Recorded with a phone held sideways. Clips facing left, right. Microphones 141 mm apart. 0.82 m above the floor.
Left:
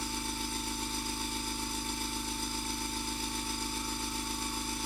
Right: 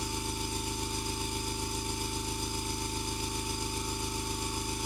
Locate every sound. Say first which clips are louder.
0.0 s an engine running: right 1 dB; 15° right (ahead or behind), 1.3 m